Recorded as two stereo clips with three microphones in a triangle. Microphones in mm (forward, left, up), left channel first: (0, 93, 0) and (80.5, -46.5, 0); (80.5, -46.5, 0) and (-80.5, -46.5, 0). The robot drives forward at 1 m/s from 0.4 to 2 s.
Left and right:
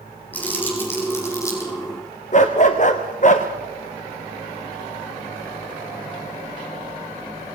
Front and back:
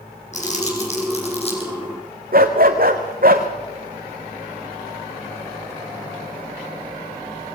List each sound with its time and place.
0.3 s crumpling: 40° left, 6 m; by 1.7 s 50° left, 5.5 m
2.3 s a dog barking: 160° left, 1.9 m